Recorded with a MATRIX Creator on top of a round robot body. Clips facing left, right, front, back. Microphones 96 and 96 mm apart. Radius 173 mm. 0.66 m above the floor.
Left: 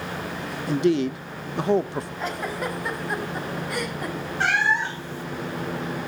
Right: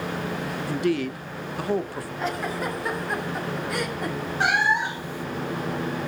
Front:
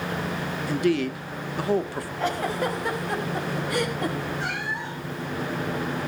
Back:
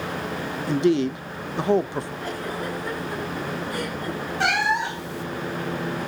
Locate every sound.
0.7 s a man speaking: 135° left, 1.1 m
2.2 s a giggle: straight ahead, 5 m
4.4 s a cat meowing: 165° right, 1.1 m